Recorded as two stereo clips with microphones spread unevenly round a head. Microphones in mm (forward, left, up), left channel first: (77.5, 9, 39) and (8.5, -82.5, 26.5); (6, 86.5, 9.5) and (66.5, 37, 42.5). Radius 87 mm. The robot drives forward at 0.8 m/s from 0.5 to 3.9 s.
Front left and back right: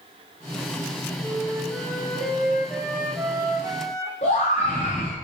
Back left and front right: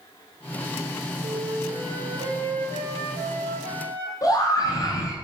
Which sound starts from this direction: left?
A scream, at 4.2 s.